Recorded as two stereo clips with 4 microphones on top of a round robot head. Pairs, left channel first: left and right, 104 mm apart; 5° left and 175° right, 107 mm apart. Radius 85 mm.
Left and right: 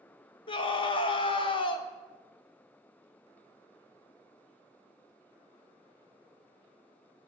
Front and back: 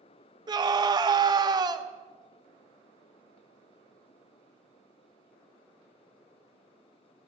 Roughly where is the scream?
Behind left.